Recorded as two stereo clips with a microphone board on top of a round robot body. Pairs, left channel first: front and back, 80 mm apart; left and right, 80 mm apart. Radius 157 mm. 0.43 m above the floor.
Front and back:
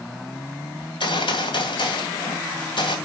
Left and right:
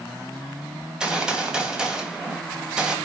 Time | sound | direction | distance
0.8 | a gunshot | 10° right | 2.5 m